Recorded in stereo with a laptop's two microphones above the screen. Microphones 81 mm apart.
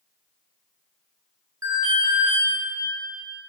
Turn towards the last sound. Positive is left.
turn(degrees=-45)  # may be behind; listen again after turning